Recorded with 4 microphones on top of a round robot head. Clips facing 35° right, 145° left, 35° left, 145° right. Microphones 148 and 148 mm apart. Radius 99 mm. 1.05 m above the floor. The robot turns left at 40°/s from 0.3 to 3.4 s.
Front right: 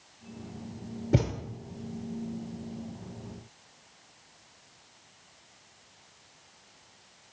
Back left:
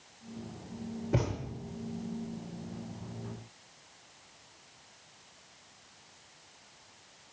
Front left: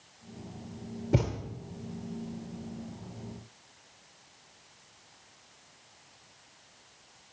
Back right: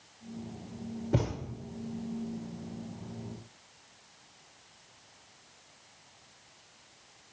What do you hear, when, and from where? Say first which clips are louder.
1.1 s a thud: front right 4 dB, front left 2 dB; 30° right, 0.7 m; by 1.3 s 40° right, 0.7 m